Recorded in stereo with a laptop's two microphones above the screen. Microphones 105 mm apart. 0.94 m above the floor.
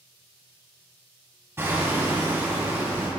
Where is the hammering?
25° right (ahead or behind), 2.5 m.